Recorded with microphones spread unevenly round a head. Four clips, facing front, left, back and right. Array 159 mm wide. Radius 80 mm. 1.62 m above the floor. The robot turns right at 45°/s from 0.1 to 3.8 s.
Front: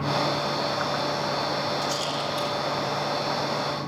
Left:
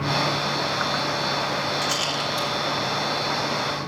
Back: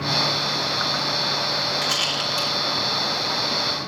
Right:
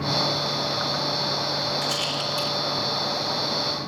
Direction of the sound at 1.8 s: 150° left.